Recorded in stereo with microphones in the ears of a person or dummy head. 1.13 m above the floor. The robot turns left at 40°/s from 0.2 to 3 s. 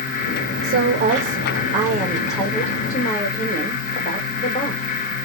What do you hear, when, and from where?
0.6 s a woman speaking: 105° right, 1.9 m; by 4.8 s 160° left, 1.9 m